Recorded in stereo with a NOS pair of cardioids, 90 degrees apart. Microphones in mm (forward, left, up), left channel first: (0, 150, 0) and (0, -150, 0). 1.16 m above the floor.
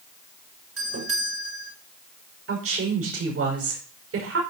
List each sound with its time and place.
0.8 s a doorbell: 50° right, 6.5 m
2.5 s a woman speaking: 50° right, 5.5 m